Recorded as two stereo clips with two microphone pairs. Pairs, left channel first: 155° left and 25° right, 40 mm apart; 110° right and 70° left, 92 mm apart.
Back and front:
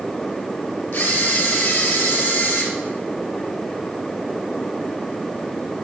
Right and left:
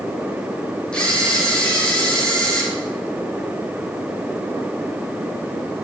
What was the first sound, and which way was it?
A camera shutter, 170° left.